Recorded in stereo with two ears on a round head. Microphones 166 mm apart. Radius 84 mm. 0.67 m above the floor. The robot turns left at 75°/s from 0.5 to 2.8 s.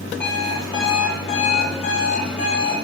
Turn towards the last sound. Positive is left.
turn(degrees=0)